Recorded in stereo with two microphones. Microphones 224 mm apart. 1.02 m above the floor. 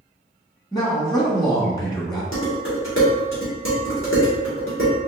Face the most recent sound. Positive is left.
turn(degrees=60)  # may be behind; listen again after turning